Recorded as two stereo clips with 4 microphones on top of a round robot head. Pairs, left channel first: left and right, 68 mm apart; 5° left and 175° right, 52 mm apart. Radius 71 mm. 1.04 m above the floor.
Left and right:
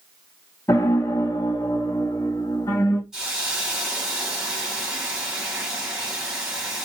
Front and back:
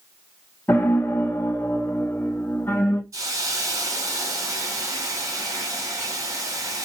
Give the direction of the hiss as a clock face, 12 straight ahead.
6 o'clock.